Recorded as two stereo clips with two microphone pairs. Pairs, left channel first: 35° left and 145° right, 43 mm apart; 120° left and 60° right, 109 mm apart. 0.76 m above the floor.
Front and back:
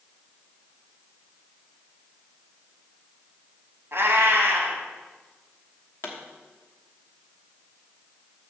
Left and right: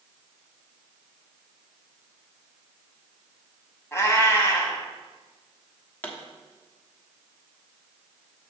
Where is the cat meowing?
175° right, 1.7 m.